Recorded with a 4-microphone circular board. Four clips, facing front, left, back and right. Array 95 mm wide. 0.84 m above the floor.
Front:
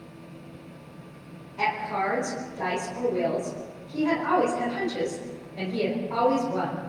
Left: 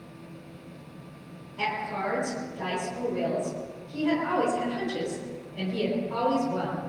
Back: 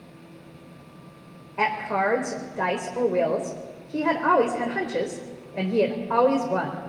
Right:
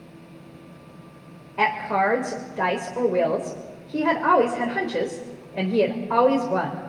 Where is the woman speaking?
125° right, 3 m.